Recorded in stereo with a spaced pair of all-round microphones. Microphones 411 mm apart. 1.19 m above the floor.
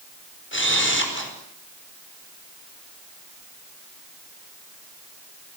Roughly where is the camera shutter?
Left.